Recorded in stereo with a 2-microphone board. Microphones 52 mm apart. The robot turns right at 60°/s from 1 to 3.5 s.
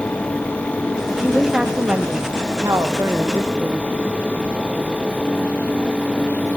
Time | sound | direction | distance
1.2 | a woman speaking | 160° left | 1.2 m